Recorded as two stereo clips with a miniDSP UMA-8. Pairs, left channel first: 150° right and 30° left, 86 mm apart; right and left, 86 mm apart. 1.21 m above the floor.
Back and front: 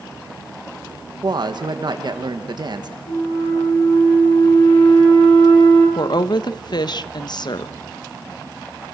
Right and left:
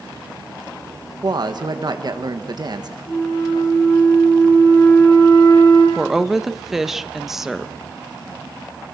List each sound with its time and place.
1.2 s a woman speaking: 60° left, 1.5 m
3.1 s a flute: 150° right, 8.5 m
6.0 s a woman speaking: 175° left, 0.9 m